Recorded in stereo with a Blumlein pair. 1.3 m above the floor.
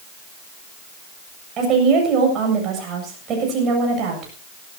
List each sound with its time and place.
1.6 s a woman speaking: 30° right, 7.5 m